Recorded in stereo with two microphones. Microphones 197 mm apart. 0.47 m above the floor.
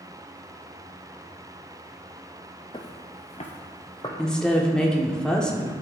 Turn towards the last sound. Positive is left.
turn(degrees=5)  # may be behind; listen again after turning